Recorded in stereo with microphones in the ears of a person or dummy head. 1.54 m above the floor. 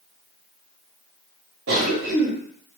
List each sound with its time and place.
1.7 s a cough: 65° right (ahead or behind), 0.8 m